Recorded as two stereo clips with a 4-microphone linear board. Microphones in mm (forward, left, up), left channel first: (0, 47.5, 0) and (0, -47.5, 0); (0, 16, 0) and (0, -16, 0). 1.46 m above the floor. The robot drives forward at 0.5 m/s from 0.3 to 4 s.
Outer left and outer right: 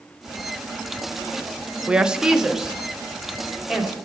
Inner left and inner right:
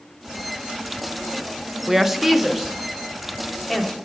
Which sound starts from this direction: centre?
A woman speaking, at 1.9 s.